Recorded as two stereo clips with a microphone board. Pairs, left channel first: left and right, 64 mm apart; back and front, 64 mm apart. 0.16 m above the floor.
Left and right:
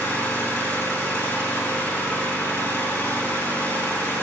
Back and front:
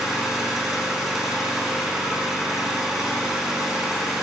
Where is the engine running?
75° left, 0.9 m.